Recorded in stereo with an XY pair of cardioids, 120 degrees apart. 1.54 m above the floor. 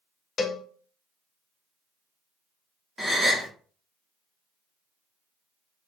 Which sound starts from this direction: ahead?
A gasp, at 3.0 s.